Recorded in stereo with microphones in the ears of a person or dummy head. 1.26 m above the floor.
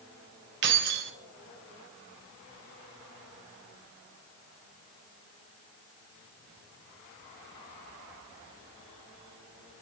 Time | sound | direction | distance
0.6 | keys jangling | 55° right (ahead or behind) | 0.6 m